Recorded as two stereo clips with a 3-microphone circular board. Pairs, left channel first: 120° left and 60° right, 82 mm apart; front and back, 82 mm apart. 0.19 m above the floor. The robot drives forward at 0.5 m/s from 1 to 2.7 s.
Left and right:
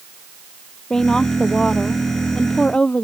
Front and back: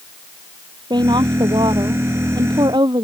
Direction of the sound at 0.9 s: 160° right.